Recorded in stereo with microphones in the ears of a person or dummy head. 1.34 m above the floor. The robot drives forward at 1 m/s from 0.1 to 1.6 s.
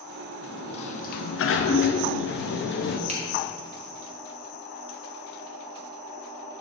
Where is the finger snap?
30° right (ahead or behind), 1.1 m.